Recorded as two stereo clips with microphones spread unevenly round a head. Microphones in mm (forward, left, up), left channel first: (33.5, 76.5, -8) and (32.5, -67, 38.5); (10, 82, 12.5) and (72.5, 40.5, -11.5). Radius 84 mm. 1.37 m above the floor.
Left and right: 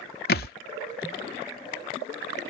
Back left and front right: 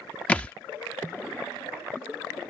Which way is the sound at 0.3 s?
115° left.